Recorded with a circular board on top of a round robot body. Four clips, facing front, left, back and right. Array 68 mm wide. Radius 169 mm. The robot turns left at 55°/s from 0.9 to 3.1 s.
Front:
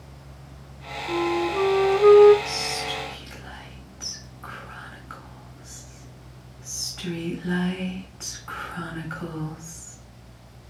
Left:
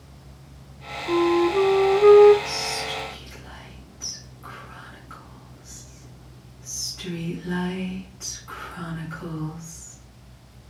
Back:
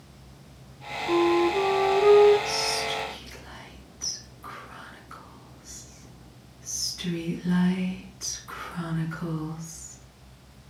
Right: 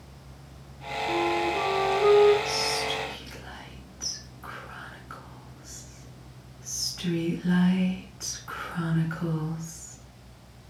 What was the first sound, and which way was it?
A flute, 115° left.